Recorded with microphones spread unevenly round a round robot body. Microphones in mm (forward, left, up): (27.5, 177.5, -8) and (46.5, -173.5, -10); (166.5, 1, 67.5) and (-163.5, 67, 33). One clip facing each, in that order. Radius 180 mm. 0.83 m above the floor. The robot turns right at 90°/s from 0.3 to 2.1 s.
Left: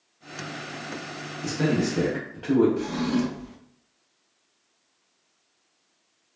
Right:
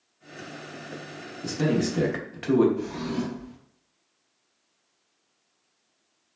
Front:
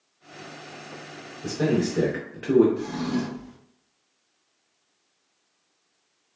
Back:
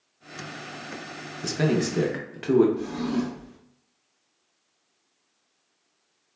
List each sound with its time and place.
1.4 s a man speaking: 175° left, 0.6 m; by 2.7 s 125° right, 0.6 m
2.8 s a drawer: 60° left, 0.8 m